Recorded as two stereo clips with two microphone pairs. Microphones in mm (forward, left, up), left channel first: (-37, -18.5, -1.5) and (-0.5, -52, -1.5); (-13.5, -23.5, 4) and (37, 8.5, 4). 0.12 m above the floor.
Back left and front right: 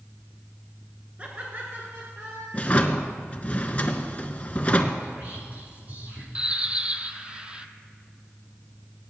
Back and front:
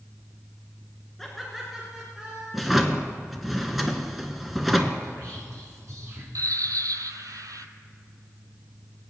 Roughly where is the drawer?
Behind left.